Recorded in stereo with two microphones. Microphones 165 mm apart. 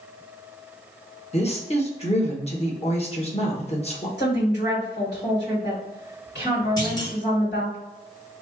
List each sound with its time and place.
1.3 s a woman speaking: 35° left (ahead or behind), 1.2 m
4.2 s a woman speaking: 65° left (ahead or behind), 2 m
6.8 s a clunk: 25° left (ahead or behind), 1.2 m